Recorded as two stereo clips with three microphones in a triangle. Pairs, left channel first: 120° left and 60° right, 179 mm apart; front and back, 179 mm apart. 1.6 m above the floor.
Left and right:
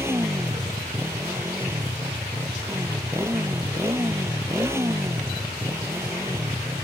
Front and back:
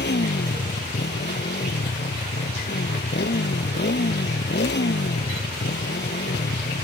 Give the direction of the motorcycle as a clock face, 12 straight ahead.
11 o'clock.